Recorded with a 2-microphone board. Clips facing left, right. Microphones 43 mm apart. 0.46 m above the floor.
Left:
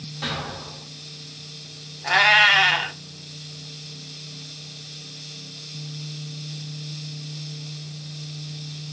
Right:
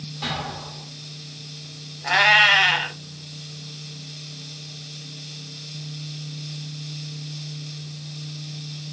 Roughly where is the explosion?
Centre.